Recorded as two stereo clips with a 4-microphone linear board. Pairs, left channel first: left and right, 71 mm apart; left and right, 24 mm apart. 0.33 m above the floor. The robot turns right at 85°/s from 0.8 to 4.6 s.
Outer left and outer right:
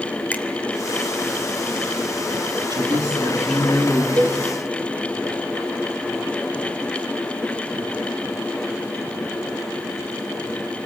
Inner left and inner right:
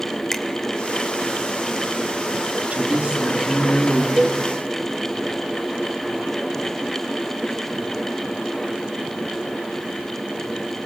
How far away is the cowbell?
About 1.0 m.